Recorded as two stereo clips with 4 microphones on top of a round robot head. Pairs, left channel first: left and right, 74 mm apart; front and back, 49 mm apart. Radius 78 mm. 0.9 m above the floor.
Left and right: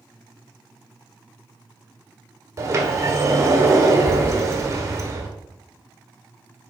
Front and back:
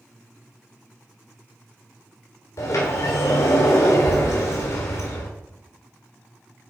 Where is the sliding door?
35° right, 2 m.